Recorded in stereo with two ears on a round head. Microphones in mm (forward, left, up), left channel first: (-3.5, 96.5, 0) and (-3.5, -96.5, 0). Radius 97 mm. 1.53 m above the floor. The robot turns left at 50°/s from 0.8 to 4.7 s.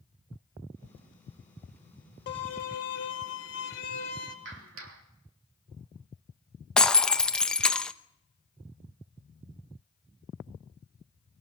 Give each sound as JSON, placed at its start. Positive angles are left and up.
{"t": 2.3, "sound": "a violin", "azimuth_deg": 125, "distance_m": 2.5}
{"t": 4.5, "sound": "a clap", "side_deg": -55, "distance_m": 3.0}
{"t": 6.8, "sound": "breaking glass", "side_deg": 5, "distance_m": 0.8}